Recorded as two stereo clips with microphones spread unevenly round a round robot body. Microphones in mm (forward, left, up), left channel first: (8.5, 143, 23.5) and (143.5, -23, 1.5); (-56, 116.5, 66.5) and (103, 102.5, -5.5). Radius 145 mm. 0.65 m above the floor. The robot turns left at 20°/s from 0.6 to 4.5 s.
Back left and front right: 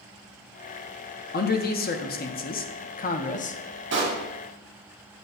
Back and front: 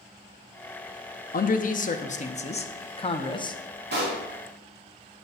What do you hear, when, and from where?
1.3 s a man speaking: 135° left, 0.8 m; by 3.6 s 90° left, 0.8 m
3.9 s a pop: 20° right, 2 m; by 4.2 s 25° right, 2 m